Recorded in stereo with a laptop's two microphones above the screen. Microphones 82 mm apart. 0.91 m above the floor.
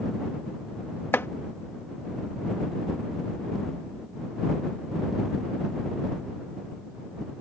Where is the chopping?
30° left (ahead or behind).